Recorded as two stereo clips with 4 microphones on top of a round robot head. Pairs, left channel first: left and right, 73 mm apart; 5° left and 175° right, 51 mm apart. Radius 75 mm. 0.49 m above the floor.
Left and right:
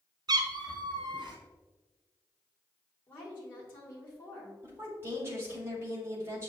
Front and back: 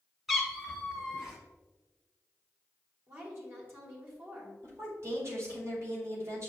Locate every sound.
0.3 s a cat meowing: 90° right, 0.9 m; by 1.4 s 95° right, 1.5 m
3.1 s a woman speaking: 150° left, 2 m
4.6 s a woman speaking: 145° right, 2 m